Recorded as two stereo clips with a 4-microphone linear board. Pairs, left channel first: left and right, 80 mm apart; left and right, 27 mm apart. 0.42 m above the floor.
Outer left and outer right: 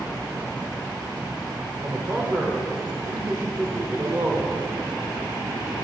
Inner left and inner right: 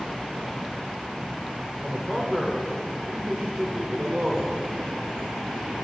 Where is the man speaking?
30° right (ahead or behind), 1.2 m.